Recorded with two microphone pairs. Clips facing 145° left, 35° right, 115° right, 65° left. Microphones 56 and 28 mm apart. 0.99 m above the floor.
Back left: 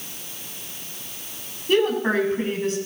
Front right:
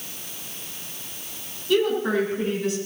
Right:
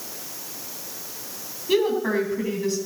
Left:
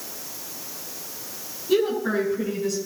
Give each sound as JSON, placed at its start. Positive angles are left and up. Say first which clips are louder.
{"t": 1.7, "sound": "a woman speaking", "louder": "back left 1 dB, right 1 dB", "azimuth_deg": -170, "distance_m": 7.0}